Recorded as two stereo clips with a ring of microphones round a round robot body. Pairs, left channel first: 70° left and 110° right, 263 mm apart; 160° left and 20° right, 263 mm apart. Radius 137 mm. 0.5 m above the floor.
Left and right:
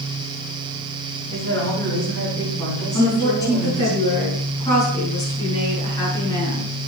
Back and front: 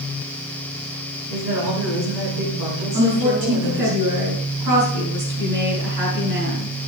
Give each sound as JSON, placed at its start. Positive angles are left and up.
{"t": 1.3, "sound": "a woman speaking", "azimuth_deg": -10, "distance_m": 7.0}
{"t": 2.9, "sound": "a woman speaking", "azimuth_deg": -10, "distance_m": 6.0}